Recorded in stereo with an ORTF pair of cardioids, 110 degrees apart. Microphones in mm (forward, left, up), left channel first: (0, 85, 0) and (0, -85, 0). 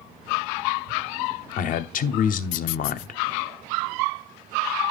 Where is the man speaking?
55° left, 0.9 m.